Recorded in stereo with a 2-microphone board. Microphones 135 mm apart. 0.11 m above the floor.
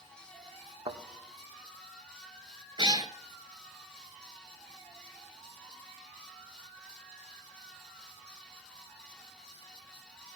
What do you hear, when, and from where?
0.9 s a thud: 60° right (ahead or behind), 2.0 m
2.8 s a cat meowing: 40° right (ahead or behind), 0.7 m